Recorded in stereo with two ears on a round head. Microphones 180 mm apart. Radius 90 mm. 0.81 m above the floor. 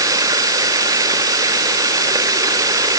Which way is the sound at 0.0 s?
15° right (ahead or behind).